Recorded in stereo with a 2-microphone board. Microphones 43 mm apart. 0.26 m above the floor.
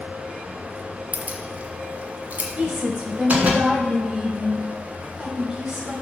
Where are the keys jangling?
40° right (ahead or behind), 1.0 m; by 3.6 s 30° right (ahead or behind), 2 m.